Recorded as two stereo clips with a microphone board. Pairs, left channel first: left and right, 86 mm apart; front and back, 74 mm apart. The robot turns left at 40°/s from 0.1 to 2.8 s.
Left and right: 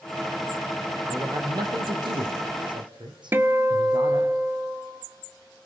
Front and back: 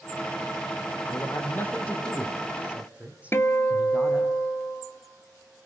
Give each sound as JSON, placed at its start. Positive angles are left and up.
{"t": 1.1, "sound": "a man speaking", "azimuth_deg": -40, "distance_m": 3.5}
{"t": 3.3, "sound": "a guitar", "azimuth_deg": -40, "distance_m": 0.9}